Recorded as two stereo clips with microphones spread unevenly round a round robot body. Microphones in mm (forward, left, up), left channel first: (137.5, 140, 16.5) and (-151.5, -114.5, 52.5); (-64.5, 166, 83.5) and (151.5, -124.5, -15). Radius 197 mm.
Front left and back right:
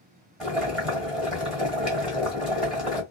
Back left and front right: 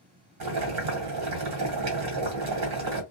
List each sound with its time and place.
0.4 s boiling: 45° right, 1.5 m